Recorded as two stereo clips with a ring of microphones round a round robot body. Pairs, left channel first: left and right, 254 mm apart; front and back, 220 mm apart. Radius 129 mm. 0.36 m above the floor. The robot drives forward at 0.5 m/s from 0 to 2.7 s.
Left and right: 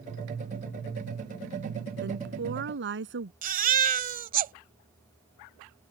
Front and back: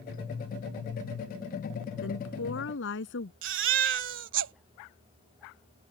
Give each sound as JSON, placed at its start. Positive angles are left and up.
{"t": 2.0, "sound": "a woman speaking", "azimuth_deg": -40}
{"t": 3.4, "sound": "a baby crying", "azimuth_deg": -145}